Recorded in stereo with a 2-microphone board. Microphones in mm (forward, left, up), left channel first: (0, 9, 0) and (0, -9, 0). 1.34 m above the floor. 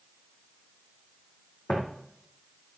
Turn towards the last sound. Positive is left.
turn(degrees=60)  # may be behind; listen again after turning